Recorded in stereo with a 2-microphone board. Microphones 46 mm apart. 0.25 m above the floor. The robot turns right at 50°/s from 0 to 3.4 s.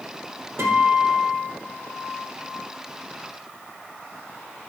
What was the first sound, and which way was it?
A guitar, 100° right.